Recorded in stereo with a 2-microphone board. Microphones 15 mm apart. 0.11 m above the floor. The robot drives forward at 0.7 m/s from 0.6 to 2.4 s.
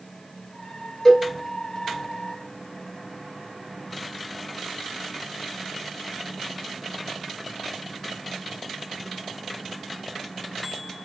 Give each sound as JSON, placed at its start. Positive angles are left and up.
{"t": 1.1, "sound": "a cowbell", "side_deg": 25, "distance_m": 1.2}